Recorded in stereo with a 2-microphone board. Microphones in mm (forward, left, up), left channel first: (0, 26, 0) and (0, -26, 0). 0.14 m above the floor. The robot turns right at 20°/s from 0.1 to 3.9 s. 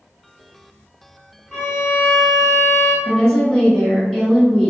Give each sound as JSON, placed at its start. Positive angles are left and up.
{"t": 1.5, "sound": "a violin", "side_deg": 10, "distance_m": 1.8}
{"t": 3.0, "sound": "a woman speaking", "side_deg": 10, "distance_m": 1.9}